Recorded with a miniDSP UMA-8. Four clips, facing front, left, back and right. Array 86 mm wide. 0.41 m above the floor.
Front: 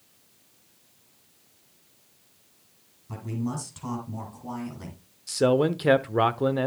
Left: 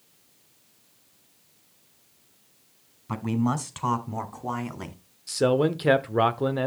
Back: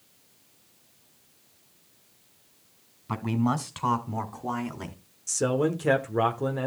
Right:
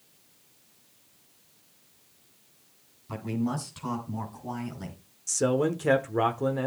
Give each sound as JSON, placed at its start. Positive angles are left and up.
{"t": 3.1, "sound": "a man speaking", "azimuth_deg": 140, "distance_m": 2.5}
{"t": 5.3, "sound": "a man speaking", "azimuth_deg": 50, "distance_m": 0.8}